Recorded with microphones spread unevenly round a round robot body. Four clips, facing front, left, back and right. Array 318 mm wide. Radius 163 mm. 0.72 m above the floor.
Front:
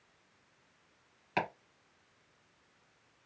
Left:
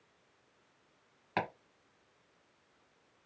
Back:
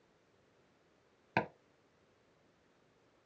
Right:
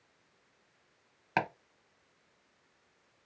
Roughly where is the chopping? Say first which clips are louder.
Right 3 dB, front 1 dB; behind right.